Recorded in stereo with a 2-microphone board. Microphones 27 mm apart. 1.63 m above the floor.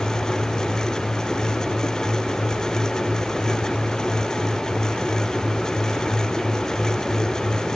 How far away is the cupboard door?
I don't hear a cupboard door.